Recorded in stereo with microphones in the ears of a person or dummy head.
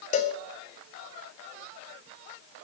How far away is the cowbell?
About 0.5 m.